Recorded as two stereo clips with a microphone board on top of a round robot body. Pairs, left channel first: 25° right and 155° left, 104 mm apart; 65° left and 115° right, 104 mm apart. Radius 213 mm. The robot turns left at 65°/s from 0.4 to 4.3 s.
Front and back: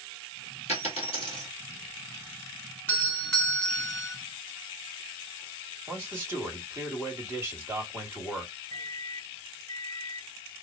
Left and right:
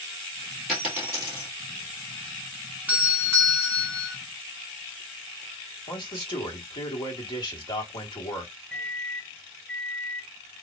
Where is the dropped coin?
25° right, 2.0 m; by 1.5 s 80° right, 2.0 m.